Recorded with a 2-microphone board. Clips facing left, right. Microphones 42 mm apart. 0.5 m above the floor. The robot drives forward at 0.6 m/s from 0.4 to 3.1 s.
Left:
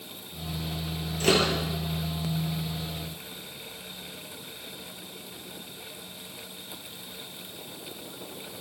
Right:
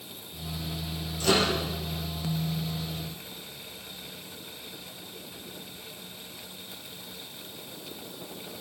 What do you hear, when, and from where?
1.2 s a microwave: 45° left (ahead or behind), 7.5 m